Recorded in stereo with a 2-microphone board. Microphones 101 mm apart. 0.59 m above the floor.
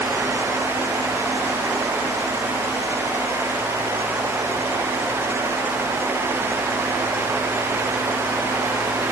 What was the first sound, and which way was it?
Only background noise.